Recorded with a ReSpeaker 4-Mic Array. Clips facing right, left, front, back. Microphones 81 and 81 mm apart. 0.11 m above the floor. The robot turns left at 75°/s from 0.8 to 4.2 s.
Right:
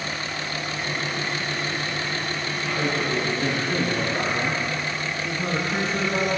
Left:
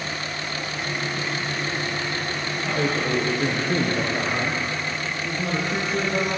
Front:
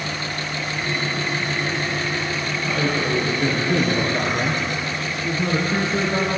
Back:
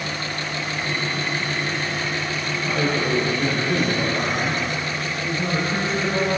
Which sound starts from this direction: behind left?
A man speaking, at 2.6 s.